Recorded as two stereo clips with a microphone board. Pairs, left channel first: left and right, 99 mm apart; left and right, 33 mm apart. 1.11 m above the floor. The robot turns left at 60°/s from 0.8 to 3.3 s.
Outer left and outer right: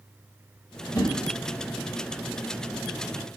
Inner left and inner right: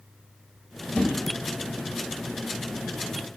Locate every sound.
0.9 s a whoosh: 30° left (ahead or behind), 0.8 m; by 1.1 s 40° left (ahead or behind), 0.8 m